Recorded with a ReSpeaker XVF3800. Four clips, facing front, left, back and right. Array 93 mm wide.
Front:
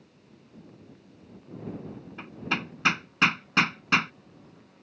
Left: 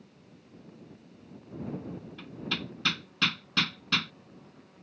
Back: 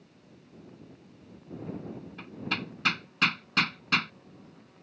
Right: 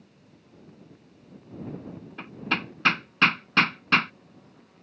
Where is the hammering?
65° right.